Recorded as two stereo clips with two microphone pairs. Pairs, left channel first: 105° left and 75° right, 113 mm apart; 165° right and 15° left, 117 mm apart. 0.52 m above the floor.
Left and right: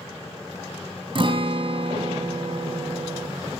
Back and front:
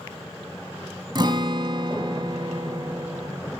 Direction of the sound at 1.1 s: 35° right.